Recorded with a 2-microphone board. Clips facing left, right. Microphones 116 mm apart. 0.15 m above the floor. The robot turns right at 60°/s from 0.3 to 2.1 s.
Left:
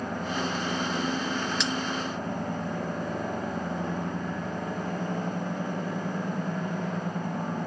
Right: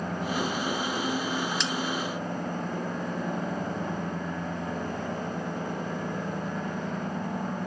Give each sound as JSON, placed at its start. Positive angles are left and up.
{"t": 1.6, "sound": "a bell", "side_deg": 0, "distance_m": 2.0}